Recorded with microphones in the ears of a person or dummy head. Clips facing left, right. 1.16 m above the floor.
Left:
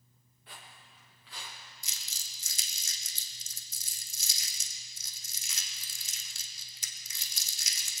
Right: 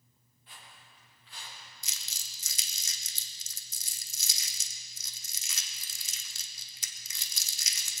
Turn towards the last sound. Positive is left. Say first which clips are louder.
# even
turn(degrees=-65)  # may be behind; listen again after turning